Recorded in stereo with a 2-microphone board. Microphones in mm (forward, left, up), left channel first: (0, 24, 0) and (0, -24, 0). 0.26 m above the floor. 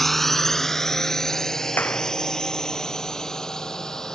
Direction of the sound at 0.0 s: 5° left (ahead or behind).